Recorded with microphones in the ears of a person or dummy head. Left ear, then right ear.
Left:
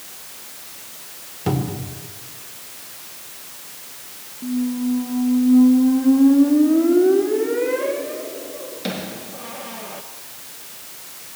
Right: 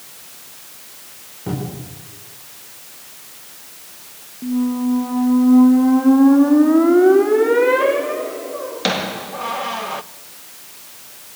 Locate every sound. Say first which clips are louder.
1.5 s a cupboard door: left 3 dB; 80° left, 4.5 m
4.4 s a squeak: right 3 dB; 45° right (ahead or behind), 0.6 m